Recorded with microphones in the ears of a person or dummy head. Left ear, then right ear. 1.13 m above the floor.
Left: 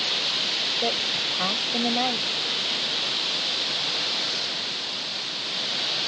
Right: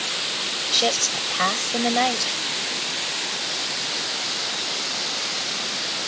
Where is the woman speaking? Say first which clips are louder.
Right 3 dB; 85° right.